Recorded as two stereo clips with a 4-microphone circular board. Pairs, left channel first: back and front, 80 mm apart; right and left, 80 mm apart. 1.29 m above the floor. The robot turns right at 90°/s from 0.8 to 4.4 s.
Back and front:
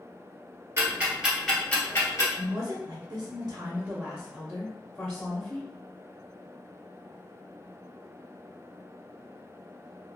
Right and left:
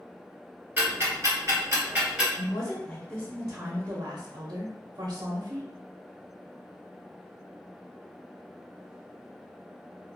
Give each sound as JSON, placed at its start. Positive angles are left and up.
{"t": 0.8, "sound": "ticking", "azimuth_deg": 35, "distance_m": 1.5}
{"t": 2.4, "sound": "a woman speaking", "azimuth_deg": -65, "distance_m": 0.6}